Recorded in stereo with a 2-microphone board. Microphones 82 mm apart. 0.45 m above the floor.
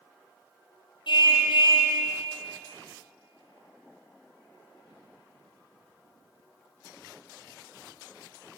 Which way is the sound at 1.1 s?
65° left (ahead or behind).